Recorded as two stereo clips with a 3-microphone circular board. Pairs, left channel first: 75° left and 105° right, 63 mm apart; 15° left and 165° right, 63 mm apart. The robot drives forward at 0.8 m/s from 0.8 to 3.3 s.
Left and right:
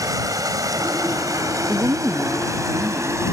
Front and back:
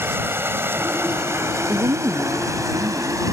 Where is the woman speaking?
150° right; by 3.2 s 165° right.